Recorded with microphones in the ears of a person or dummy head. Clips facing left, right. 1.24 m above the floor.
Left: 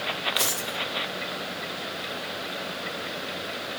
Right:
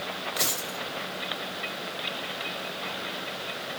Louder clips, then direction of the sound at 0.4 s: Left 2 dB; 15° left (ahead or behind).